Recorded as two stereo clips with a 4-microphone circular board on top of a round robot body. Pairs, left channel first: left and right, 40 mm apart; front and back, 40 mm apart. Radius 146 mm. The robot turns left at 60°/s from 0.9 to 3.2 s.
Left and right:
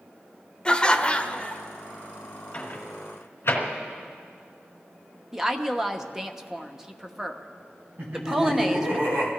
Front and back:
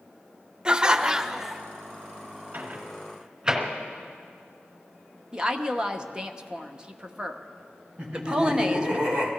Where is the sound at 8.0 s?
125° right, 4 m.